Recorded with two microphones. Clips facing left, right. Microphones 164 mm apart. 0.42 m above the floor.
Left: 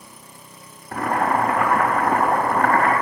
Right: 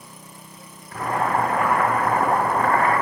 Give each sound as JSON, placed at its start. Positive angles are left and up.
{"t": 0.9, "sound": "boiling", "side_deg": 75, "distance_m": 4.0}